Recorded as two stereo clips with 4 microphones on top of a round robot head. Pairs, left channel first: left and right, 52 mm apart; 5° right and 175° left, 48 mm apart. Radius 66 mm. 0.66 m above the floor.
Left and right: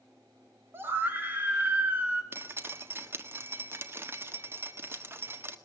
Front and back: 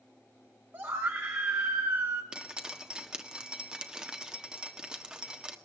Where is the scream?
135° right, 3.5 m; by 2.2 s 150° right, 4 m.